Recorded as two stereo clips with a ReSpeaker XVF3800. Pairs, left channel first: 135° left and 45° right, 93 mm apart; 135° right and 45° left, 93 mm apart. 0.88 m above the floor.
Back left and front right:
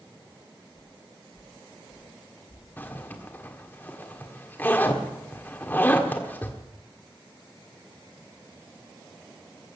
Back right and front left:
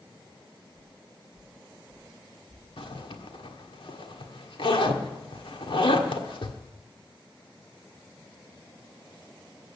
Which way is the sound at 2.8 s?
155° right.